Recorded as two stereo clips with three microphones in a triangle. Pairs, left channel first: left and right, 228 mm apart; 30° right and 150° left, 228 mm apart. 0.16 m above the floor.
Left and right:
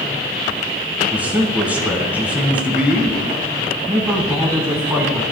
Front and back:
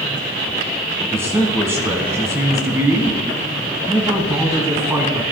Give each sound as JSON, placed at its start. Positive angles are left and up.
{"t": 1.1, "sound": "a man speaking", "azimuth_deg": -160, "distance_m": 1.2}